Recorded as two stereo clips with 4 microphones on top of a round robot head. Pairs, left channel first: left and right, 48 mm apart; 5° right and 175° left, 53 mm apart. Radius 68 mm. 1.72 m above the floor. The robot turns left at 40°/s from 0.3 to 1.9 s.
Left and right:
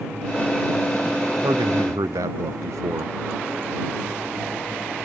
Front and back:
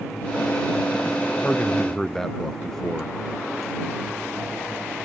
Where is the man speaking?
70° right; by 3.1 s 90° right.